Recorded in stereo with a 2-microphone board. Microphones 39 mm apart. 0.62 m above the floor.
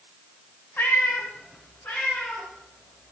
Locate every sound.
0.8 s a cat meowing: 60° left (ahead or behind), 2 m; by 3.1 s 45° left (ahead or behind), 5.5 m